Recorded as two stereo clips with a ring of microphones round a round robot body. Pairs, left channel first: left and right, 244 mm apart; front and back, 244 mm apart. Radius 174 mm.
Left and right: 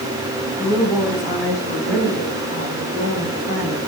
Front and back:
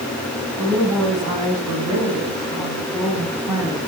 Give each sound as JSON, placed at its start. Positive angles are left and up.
{"t": 0.6, "sound": "a woman speaking", "azimuth_deg": 175, "distance_m": 7.0}